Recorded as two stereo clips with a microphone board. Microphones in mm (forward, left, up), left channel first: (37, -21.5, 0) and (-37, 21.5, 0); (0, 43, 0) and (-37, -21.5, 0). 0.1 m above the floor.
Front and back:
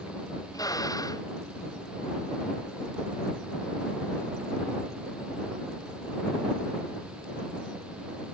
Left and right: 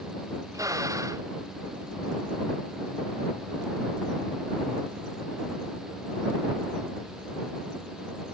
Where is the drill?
75° right.